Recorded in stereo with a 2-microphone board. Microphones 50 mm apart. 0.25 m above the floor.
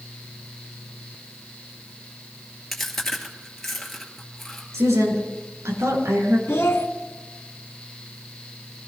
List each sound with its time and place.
2.7 s chewing: 5° left (ahead or behind), 2.5 m
4.7 s a woman speaking: 75° right (ahead or behind), 5 m
6.5 s a child speaking: 50° left (ahead or behind), 1.0 m